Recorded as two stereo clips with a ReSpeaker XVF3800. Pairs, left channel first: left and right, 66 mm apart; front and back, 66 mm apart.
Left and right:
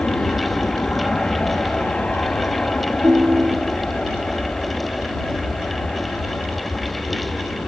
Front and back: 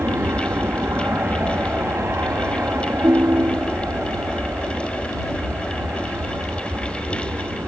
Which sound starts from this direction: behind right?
A ringtone, at 3.0 s.